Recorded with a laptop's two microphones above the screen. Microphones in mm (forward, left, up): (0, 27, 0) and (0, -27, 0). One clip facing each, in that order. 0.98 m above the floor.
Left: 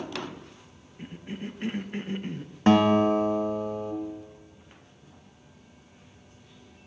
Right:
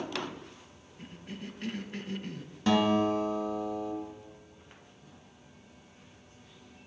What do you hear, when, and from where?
1.0 s a cough: 25° left (ahead or behind), 0.5 m
2.7 s a guitar: 40° left (ahead or behind), 0.8 m